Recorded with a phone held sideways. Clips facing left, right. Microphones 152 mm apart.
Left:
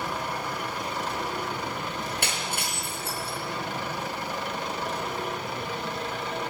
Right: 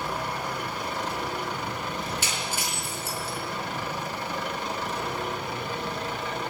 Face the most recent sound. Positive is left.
turn(degrees=65)  # may be behind; listen again after turning